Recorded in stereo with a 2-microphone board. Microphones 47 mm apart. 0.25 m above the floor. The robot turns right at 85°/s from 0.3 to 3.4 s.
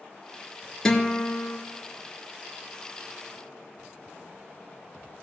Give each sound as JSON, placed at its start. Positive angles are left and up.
{"t": 0.8, "sound": "a guitar", "azimuth_deg": 10, "distance_m": 2.0}